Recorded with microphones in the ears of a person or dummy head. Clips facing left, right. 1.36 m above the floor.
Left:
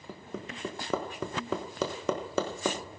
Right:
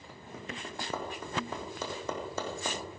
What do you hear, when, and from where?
0.1 s hammering: 60° left (ahead or behind), 1.3 m